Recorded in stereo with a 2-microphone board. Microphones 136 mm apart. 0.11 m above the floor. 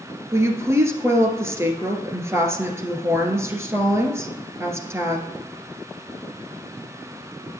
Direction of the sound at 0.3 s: 20° right (ahead or behind).